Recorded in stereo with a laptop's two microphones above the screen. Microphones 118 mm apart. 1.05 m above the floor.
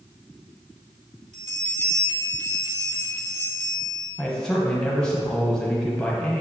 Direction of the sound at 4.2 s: 5° left (ahead or behind).